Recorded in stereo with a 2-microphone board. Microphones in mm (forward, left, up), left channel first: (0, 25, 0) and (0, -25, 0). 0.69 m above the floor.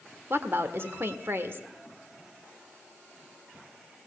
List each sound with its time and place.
0.3 s a woman speaking: 55° right (ahead or behind), 1.6 m